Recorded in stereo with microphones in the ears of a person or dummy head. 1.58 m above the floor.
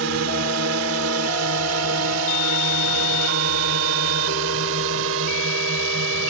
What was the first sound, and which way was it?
A drone, 65° right (ahead or behind).